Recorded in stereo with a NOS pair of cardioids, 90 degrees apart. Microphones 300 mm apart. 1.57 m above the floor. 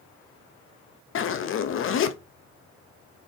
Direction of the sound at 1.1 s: 45° left.